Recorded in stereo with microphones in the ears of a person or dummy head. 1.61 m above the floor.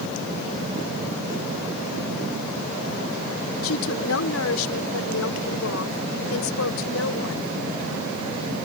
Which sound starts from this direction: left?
A woman speaking, at 3.6 s.